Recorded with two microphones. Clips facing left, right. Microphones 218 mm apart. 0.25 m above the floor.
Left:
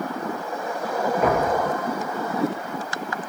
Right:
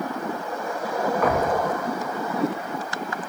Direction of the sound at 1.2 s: 25° left (ahead or behind).